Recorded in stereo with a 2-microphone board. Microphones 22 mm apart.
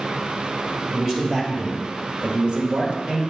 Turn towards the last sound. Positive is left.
turn(degrees=-45)  # may be behind; listen again after turning